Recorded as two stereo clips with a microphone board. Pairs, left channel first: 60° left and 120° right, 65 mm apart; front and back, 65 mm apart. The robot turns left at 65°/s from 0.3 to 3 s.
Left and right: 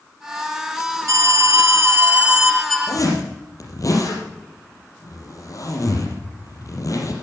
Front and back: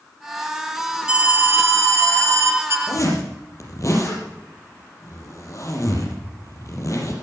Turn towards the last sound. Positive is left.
turn(degrees=35)